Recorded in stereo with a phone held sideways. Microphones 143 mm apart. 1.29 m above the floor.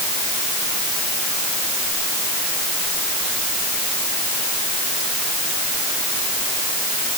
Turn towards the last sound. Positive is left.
No sound to turn to.